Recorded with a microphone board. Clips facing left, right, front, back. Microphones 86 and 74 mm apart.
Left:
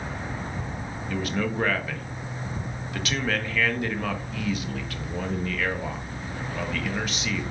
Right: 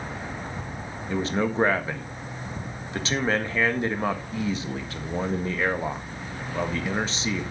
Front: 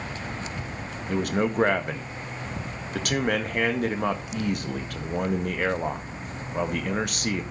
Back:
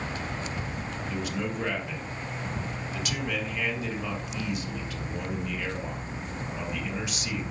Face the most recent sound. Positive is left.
turn(degrees=-30)